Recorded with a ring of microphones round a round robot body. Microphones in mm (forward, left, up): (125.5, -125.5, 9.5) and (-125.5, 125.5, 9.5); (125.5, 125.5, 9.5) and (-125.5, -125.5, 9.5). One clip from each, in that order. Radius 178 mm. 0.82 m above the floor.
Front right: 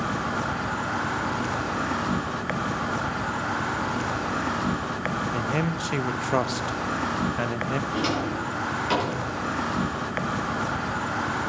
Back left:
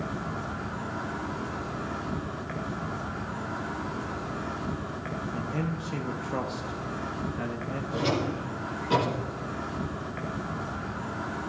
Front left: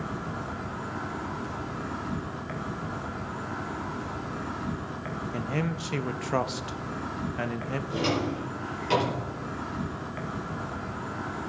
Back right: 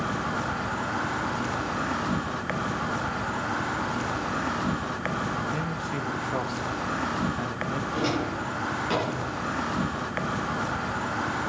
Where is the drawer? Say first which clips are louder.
Front right 3 dB, front left 2 dB; 35° right, 7.5 m.